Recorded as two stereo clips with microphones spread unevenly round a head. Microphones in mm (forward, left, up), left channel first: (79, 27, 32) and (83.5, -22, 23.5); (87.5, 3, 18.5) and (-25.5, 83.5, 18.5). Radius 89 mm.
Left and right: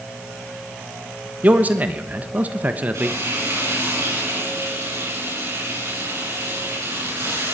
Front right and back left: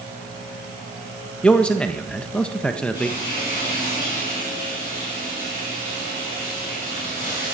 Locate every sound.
1.4 s a man speaking: 115° right, 1.0 m
2.9 s frying: 100° right, 9 m